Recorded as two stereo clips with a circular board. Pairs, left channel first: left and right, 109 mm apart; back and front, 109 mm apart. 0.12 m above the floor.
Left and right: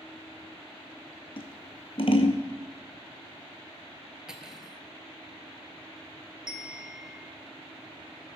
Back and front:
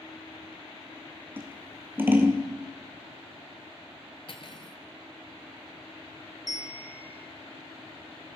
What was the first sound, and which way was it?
Scissors, 70° left.